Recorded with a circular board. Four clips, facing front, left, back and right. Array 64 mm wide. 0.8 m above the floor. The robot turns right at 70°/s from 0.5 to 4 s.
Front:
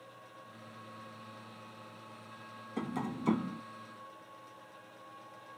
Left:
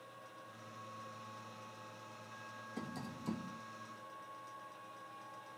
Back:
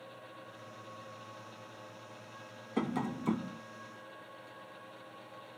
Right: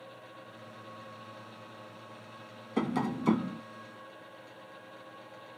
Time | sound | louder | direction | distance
2.8 | tapping | right 17 dB, back 3 dB | 115° right | ?